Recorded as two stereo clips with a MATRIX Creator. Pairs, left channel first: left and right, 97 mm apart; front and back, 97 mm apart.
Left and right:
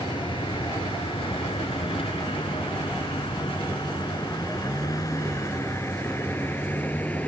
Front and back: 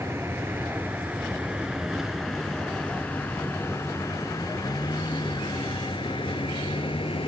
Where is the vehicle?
115° left; by 7.3 s 15° left.